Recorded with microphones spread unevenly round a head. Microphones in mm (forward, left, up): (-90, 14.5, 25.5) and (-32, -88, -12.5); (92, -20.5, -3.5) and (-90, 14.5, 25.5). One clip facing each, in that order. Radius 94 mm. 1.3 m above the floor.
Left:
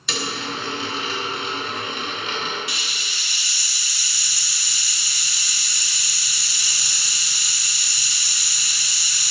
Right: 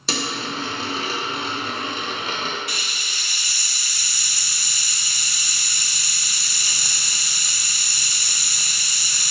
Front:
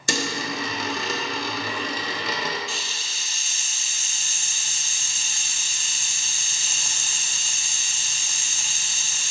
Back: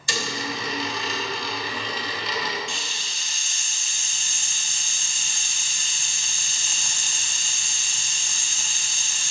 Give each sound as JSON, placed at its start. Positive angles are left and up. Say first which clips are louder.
{"t": 0.1, "sound": "a dropped coin", "louder": "right 1 dB, front 3 dB", "azimuth_deg": 0, "distance_m": 0.8}
{"t": 2.7, "sound": "a hiss", "louder": "right 1 dB, even", "azimuth_deg": -105, "distance_m": 0.6}